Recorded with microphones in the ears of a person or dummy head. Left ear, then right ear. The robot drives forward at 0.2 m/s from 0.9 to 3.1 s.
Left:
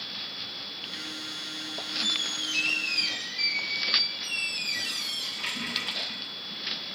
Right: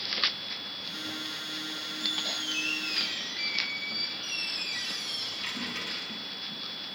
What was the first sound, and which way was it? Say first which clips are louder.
A squeak: left 3 dB; 20° left (ahead or behind).